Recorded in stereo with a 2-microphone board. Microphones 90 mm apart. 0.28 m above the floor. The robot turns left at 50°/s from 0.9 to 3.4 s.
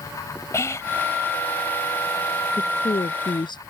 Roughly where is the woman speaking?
Left.